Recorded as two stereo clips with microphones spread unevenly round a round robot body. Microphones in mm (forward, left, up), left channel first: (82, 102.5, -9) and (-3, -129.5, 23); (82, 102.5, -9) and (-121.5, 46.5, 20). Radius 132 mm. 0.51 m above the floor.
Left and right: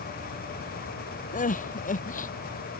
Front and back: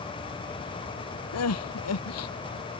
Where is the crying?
10° left.